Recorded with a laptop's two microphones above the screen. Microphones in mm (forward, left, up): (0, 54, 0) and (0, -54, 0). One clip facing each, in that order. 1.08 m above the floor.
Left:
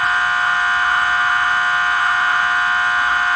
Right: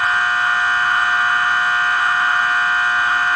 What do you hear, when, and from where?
0.0 s a machine running: 25° left (ahead or behind), 7 m